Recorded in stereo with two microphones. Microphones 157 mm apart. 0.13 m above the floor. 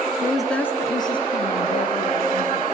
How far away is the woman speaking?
About 1.2 m.